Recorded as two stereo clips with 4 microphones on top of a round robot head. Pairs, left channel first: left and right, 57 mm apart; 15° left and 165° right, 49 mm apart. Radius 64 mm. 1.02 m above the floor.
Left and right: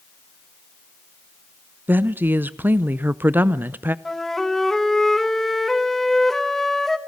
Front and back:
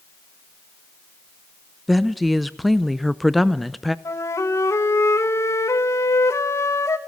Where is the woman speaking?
75° right, 0.7 m.